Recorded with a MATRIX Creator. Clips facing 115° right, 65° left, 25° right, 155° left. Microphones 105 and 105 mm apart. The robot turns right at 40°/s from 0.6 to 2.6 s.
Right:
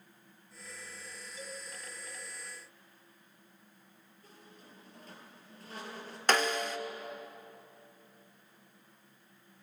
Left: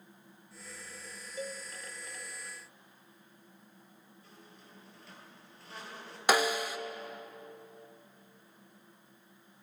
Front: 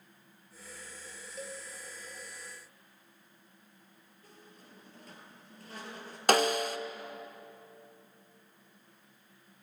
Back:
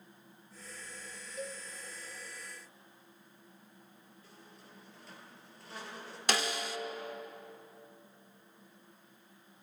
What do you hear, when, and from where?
1.4 s a cowbell: 70° left, 1.1 m; by 1.6 s 80° left, 1.1 m
4.2 s a squeak: 65° right, 3 m
6.3 s a snare drum: 10° right, 0.5 m